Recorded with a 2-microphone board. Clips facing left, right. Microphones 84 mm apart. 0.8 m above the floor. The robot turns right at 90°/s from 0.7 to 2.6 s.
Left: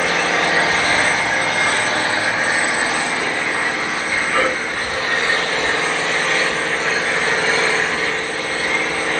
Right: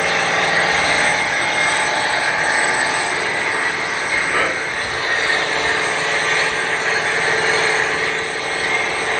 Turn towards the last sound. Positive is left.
turn(degrees=-165)